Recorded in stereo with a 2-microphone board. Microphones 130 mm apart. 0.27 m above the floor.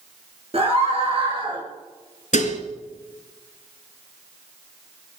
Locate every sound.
0.5 s a scream: 50° right (ahead or behind), 5.5 m; by 1.6 s 40° right (ahead or behind), 4.5 m
2.3 s dishes clattering: 70° left (ahead or behind), 2.5 m